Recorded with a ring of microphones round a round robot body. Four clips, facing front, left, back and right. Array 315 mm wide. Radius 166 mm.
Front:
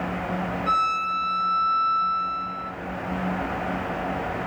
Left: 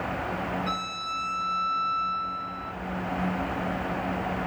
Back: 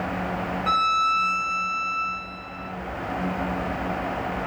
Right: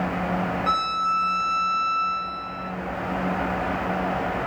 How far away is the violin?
About 0.6 m.